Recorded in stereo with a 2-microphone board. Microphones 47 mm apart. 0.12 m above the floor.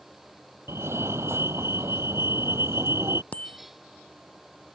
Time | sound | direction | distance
0.7 | a fire alarm | 65° right (ahead or behind) | ?
3.3 | a bicycle bell | 30° left (ahead or behind) | ?